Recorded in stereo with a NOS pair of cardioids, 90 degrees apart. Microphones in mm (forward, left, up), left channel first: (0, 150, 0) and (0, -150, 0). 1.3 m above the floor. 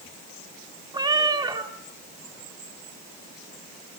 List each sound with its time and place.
0.9 s a cat meowing: 15° right, 1.8 m